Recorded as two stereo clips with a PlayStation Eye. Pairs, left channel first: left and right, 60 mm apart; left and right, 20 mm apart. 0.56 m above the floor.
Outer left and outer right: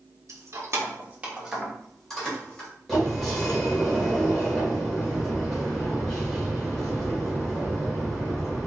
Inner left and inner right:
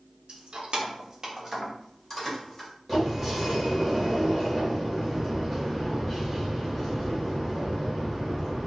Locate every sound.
0.3 s keys jangling: 60° right (ahead or behind), 1.2 m; by 2.7 s 15° left (ahead or behind), 2.5 m
2.9 s a sliding door: 5° left (ahead or behind), 1.7 m